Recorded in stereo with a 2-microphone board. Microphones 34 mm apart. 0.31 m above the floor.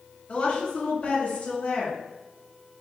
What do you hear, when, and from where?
0.3 s a woman speaking: 40° left (ahead or behind), 1.8 m